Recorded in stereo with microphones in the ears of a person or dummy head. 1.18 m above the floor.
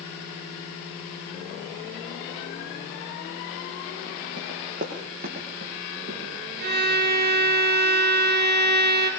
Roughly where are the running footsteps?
Right.